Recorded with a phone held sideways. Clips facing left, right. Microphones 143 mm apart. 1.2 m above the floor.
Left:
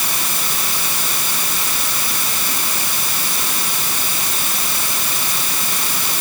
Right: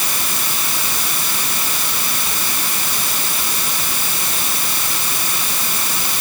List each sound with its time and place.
Only background noise.